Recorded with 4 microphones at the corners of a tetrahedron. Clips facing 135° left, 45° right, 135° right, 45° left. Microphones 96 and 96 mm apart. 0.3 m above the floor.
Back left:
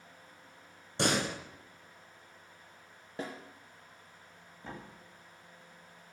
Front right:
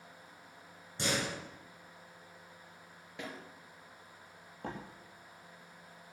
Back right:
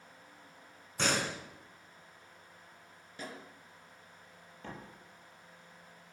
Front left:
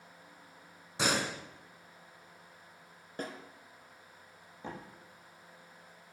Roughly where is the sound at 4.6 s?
Ahead right.